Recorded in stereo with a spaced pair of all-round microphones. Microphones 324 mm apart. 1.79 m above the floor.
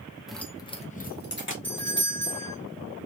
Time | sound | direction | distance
0.3 | keys jangling | centre (ahead or behind) | 0.7 m
1.6 | a doorbell | 35° right (ahead or behind) | 1.2 m